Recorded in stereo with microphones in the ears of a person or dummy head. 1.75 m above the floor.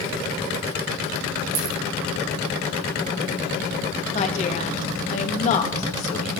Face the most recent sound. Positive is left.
turn(degrees=45)  # may be behind; listen again after turning